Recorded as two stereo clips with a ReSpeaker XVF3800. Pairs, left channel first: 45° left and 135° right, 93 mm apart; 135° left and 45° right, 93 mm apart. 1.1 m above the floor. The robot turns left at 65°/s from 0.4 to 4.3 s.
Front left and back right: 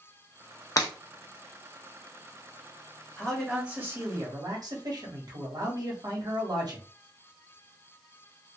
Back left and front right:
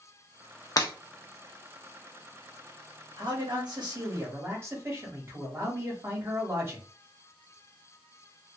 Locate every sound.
0.8 s breaking glass: 90° left, 0.7 m; by 0.9 s 80° left, 0.7 m
3.2 s a man speaking: 30° right, 1.2 m; by 6.9 s 100° right, 1.2 m